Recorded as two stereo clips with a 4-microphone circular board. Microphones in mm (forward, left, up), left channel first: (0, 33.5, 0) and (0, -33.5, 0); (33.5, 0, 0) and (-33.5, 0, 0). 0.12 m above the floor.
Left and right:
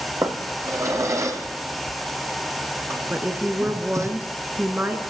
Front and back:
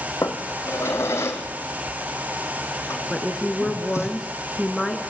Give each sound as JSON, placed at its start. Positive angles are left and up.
{"t": 0.2, "sound": "a drawer", "azimuth_deg": -50, "distance_m": 2.5}
{"t": 3.1, "sound": "a woman speaking", "azimuth_deg": -85, "distance_m": 1.7}